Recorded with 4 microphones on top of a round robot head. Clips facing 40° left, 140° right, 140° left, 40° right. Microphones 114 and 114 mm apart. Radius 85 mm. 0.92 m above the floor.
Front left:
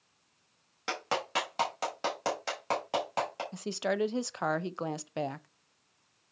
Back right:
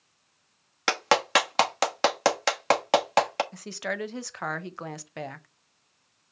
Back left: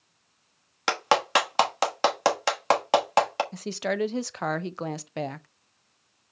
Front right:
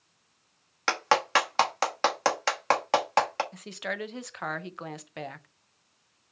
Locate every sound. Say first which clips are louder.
0.9 s a clap: back right 10 dB, back left 2 dB; 145° right, 1.1 m
3.5 s a woman speaking: front left 2 dB, back left 8 dB; 100° left, 0.6 m